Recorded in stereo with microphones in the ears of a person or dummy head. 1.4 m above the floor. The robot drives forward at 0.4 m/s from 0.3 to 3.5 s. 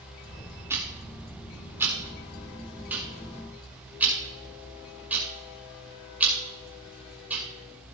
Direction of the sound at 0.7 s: 15° right (ahead or behind).